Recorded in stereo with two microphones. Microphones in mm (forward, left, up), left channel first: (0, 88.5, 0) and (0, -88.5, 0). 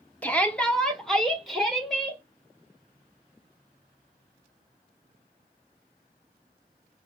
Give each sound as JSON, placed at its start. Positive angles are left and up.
{"t": 0.2, "sound": "a shout", "side_deg": 10, "distance_m": 0.8}